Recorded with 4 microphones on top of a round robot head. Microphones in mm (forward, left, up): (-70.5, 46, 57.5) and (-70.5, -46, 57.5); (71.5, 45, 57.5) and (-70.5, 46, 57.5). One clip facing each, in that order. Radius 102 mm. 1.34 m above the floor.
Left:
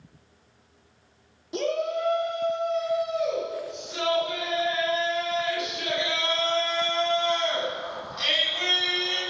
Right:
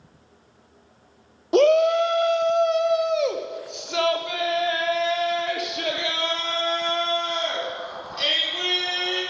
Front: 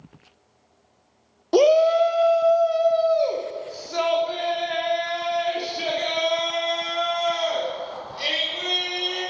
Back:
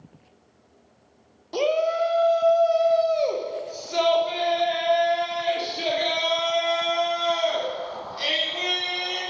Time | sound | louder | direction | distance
1.5 | a shout | right 11 dB, front 7 dB | 45° right | 0.6 m